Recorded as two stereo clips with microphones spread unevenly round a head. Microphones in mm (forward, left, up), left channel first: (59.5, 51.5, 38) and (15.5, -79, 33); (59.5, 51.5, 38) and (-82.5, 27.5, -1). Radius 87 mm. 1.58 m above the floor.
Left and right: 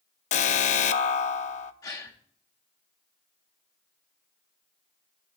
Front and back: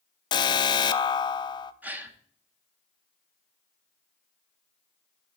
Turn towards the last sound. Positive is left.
turn(degrees=90)